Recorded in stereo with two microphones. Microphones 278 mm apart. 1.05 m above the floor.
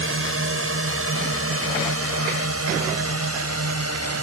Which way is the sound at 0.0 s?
50° right (ahead or behind).